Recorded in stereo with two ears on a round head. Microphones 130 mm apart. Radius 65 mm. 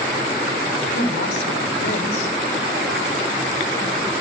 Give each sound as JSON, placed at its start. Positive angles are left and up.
{"t": 0.9, "sound": "a woman speaking", "side_deg": 85, "distance_m": 3.5}